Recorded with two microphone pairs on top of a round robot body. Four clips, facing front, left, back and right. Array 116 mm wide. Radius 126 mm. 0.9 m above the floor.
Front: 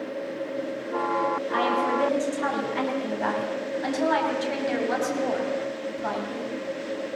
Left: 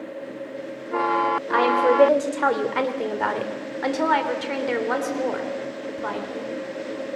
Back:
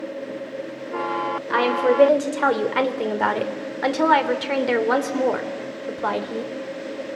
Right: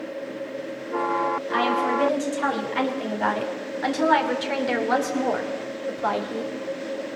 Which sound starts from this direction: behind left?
A woman speaking, at 1.5 s.